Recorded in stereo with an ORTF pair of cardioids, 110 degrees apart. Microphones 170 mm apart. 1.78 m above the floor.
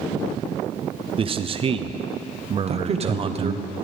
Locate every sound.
1.2 s a man speaking: 30° right, 0.6 m
2.7 s a man speaking: 35° right, 0.8 m